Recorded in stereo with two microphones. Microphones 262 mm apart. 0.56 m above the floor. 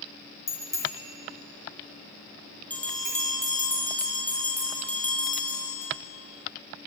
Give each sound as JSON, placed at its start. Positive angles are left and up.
{"t": 0.5, "sound": "a bicycle bell", "side_deg": 75, "distance_m": 5.0}
{"t": 2.7, "sound": "a bell", "side_deg": 5, "distance_m": 4.5}